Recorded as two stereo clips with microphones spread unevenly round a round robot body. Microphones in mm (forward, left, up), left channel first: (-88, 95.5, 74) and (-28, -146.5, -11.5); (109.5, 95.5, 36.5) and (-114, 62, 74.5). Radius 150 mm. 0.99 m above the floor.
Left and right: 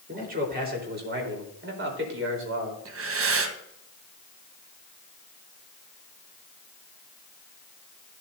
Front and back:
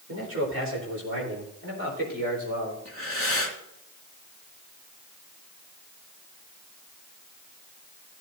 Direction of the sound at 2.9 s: 115° right.